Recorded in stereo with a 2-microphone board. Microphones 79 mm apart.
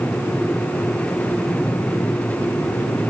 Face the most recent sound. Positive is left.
No sound to turn to.